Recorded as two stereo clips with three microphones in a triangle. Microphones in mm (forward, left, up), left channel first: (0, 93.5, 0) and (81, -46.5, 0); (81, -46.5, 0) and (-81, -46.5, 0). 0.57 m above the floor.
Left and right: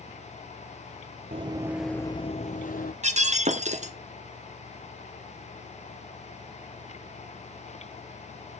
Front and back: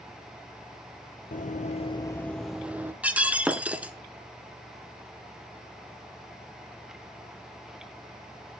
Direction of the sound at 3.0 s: 100° right.